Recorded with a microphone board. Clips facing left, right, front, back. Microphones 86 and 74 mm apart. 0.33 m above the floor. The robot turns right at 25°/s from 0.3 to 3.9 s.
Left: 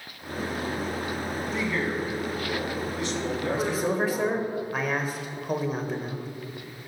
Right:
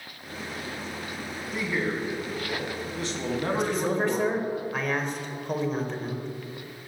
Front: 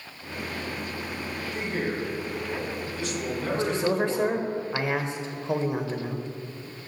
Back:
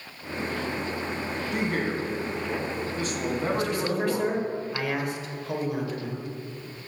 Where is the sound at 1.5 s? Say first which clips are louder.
Right 1 dB, back 2 dB; 175° right, 2.5 m; by 4.4 s 115° right, 2.5 m.